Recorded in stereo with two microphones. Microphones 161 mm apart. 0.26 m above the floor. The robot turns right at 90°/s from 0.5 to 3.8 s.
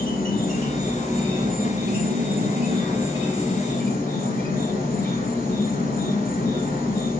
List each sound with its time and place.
0.0 s an insect: 120° left, 3 m; by 7.2 s 55° left, 3 m